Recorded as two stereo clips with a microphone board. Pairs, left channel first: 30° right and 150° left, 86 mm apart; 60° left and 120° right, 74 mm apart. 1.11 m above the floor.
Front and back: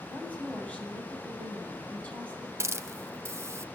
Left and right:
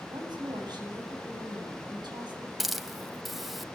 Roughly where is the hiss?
Behind left.